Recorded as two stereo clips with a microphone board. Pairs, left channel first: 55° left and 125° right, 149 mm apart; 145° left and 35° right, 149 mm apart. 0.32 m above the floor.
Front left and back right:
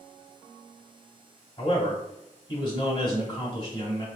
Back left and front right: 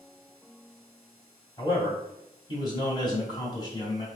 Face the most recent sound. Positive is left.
turn(degrees=100)